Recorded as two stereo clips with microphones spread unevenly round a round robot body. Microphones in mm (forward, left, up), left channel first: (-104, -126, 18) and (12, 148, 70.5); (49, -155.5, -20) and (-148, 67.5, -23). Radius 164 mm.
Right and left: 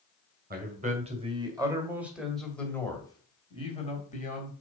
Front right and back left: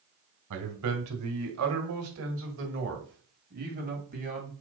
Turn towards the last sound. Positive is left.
turn(degrees=-165)